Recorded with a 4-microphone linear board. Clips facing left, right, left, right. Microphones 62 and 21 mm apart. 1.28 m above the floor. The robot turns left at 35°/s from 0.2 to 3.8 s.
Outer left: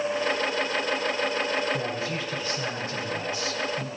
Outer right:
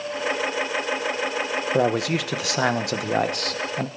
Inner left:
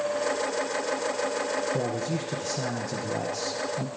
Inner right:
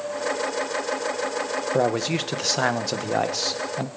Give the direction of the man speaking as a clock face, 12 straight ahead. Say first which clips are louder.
Outer right 8 dB, inner right 6 dB; 2 o'clock.